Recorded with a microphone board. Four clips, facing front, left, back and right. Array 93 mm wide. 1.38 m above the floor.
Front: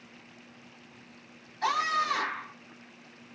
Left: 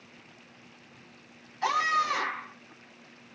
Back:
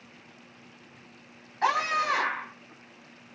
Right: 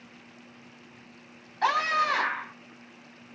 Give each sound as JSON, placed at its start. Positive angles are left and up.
{"t": 1.6, "sound": "a scream", "azimuth_deg": -135, "distance_m": 5.5}